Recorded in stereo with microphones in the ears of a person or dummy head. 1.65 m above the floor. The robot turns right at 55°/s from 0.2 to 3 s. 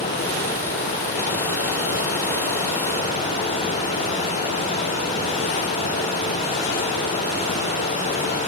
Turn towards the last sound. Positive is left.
No sound to turn to.